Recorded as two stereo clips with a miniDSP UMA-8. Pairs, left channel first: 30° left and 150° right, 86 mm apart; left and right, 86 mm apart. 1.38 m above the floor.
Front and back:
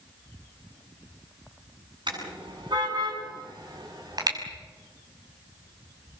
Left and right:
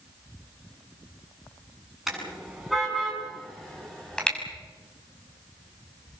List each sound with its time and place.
2.1 s a car horn: 175° right, 8.5 m; by 4.4 s 170° left, 5.5 m